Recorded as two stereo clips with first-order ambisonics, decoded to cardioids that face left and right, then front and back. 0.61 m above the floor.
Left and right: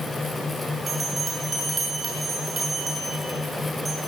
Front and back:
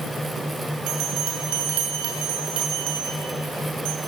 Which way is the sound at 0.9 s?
170° right.